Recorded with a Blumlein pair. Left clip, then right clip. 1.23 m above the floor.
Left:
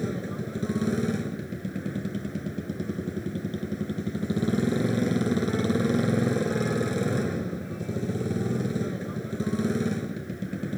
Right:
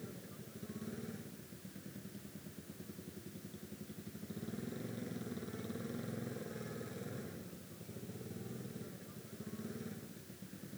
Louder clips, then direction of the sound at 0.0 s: Left 19 dB; 40° left.